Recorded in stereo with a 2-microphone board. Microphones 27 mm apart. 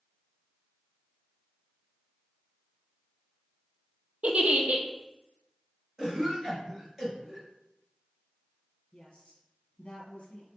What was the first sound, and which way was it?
A giggle, 60° right (ahead or behind).